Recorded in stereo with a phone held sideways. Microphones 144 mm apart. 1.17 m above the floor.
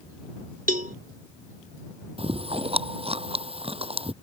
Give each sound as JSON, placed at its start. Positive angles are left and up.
{"t": 0.7, "sound": "a cowbell", "side_deg": -70}
{"t": 2.2, "sound": "chewing", "side_deg": -40}